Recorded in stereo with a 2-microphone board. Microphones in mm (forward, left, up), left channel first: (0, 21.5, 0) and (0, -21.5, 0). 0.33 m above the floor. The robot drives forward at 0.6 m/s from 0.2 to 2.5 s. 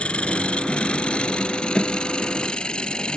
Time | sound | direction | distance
0.0 | an engine running | 30° left (ahead or behind) | ?